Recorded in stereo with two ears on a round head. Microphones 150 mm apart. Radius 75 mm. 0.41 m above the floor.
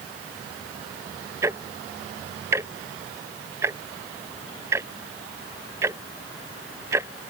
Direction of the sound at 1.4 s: 15° right (ahead or behind).